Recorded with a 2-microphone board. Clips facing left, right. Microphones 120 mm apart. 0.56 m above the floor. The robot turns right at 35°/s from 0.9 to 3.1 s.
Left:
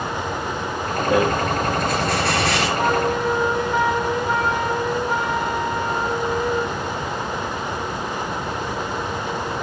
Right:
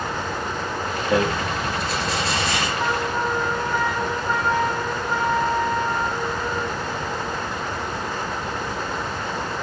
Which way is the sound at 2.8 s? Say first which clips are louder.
Left 4 dB; 80° left.